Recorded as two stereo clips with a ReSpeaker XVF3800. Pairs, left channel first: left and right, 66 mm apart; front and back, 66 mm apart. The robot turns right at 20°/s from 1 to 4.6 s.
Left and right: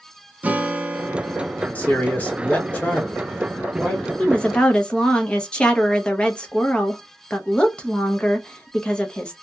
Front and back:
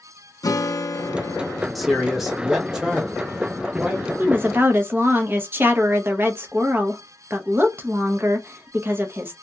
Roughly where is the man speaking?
Left.